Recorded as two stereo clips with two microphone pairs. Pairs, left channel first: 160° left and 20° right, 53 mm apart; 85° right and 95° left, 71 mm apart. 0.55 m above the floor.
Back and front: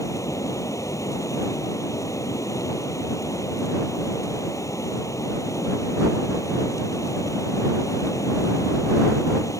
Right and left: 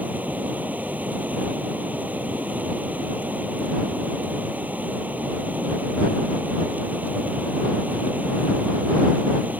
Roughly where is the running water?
Behind.